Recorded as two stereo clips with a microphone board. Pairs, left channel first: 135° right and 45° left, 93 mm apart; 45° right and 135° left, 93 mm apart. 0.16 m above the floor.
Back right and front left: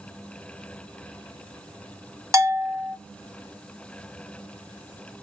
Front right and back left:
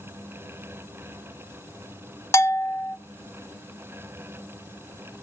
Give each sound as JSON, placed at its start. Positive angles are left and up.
{"t": 2.3, "sound": "a bell", "azimuth_deg": 5, "distance_m": 0.6}